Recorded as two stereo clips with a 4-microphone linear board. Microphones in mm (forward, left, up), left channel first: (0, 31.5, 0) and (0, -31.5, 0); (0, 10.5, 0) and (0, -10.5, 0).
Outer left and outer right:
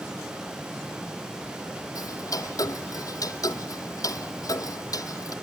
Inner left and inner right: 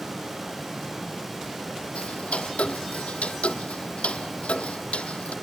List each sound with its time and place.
1.9 s ticking: 75° left (ahead or behind), 0.8 m